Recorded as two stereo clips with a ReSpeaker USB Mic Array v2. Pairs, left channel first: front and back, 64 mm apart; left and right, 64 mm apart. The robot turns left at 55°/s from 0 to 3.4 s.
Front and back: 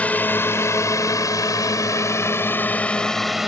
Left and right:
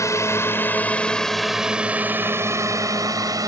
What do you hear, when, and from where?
0.0 s a drone: 65° left; by 3.5 s 95° right